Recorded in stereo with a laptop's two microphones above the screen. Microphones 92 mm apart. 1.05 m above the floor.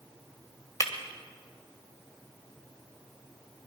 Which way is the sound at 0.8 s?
35° left (ahead or behind).